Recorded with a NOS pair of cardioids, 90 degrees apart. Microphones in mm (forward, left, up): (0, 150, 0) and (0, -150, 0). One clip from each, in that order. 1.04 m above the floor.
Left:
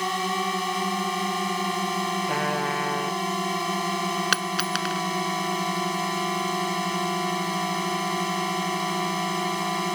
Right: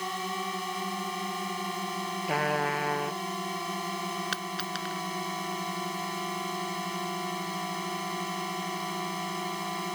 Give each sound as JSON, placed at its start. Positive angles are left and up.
{"t": 0.0, "sound": "a drone", "azimuth_deg": 55}
{"t": 2.3, "sound": "a trumpet", "azimuth_deg": 5}
{"t": 4.3, "sound": "a dropped coin", "azimuth_deg": 65}